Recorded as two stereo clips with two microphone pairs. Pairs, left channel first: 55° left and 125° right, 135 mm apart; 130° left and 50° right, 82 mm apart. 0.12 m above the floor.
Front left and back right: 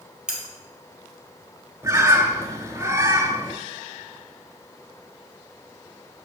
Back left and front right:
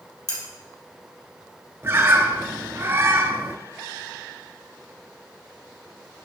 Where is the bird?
75° right, 0.5 m.